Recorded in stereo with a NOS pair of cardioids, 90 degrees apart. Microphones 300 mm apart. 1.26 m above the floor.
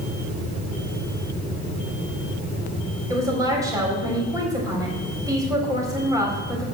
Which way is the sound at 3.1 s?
10° right.